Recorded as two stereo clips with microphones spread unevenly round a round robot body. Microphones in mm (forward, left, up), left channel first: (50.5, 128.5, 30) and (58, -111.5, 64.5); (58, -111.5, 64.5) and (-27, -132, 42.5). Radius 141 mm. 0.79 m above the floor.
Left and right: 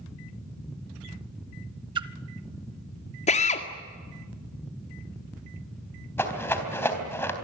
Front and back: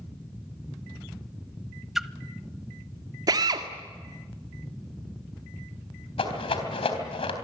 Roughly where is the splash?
Ahead right.